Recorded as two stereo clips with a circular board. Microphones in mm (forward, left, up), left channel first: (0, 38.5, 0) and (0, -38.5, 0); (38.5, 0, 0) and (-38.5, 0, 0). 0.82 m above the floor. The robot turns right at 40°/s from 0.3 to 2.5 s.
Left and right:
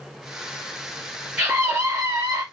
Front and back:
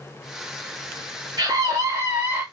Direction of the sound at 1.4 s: 170° right.